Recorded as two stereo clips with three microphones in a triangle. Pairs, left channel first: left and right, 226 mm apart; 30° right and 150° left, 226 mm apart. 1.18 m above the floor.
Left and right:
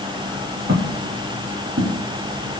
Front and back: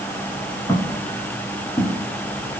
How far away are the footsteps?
About 6 m.